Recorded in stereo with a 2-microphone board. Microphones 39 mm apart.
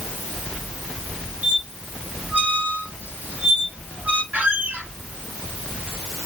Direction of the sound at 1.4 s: 55° right (ahead or behind).